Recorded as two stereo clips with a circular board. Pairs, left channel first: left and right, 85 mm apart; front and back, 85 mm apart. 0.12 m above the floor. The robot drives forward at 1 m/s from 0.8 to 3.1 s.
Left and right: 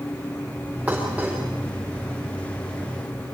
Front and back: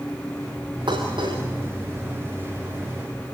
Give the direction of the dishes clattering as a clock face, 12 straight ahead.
6 o'clock.